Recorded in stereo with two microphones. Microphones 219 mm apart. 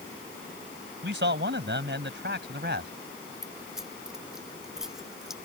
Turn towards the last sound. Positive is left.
turn(degrees=0)  # may be behind; listen again after turning